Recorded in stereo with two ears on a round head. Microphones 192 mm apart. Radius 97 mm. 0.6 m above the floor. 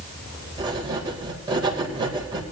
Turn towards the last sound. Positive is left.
turn(degrees=-20)  # may be behind; listen again after turning